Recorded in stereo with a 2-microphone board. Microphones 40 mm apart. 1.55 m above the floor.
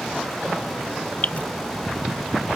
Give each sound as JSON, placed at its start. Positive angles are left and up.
{"t": 1.2, "sound": "dripping", "side_deg": 40}